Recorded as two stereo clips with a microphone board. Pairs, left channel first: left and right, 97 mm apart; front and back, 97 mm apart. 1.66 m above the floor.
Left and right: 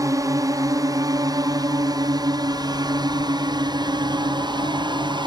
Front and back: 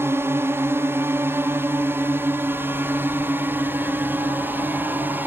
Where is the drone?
125° right; by 5.3 s 115° right.